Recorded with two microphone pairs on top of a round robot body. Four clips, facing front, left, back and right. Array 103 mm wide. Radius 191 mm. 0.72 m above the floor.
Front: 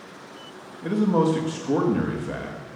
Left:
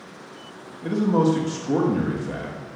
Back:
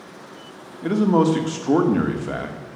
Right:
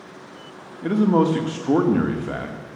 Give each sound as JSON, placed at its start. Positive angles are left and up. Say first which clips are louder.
{"t": 0.8, "sound": "a man speaking", "louder": "right 2 dB, back 3 dB", "azimuth_deg": -150, "distance_m": 2.0}